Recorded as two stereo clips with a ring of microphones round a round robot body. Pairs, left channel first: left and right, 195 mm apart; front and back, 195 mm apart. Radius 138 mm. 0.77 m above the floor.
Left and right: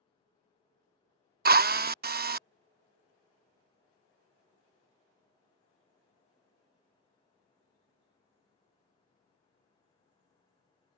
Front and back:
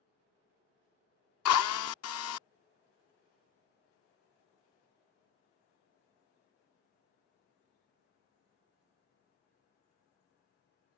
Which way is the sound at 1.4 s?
40° right.